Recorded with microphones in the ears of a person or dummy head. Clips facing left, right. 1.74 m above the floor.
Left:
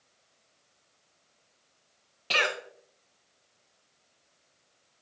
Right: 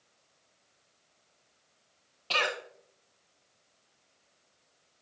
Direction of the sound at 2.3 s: 25° left (ahead or behind).